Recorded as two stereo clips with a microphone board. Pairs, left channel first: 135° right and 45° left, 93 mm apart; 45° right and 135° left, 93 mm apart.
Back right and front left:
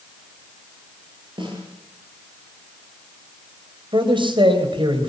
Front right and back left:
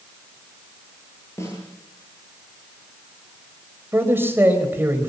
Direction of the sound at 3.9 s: 70° left.